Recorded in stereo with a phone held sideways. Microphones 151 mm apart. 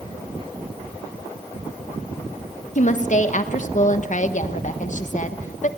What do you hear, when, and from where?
2.8 s a woman speaking: 55° left (ahead or behind), 1.2 m